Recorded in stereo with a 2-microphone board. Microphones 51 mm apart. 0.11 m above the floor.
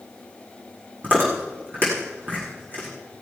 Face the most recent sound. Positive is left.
turn(degrees=-40)  # may be behind; listen again after turning